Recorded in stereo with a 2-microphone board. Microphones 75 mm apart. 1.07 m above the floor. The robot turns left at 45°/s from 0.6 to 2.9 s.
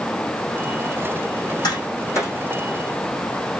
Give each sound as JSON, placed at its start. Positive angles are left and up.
{"t": 1.6, "sound": "tapping", "side_deg": 65, "distance_m": 8.0}